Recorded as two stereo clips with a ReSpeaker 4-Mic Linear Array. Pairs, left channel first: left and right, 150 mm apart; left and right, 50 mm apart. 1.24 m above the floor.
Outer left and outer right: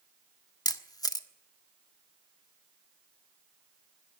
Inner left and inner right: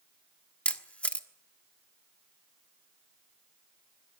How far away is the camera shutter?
About 1.2 m.